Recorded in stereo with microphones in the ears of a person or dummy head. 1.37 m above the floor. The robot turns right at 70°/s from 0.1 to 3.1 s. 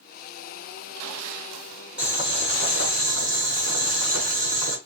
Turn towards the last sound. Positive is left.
turn(degrees=-100)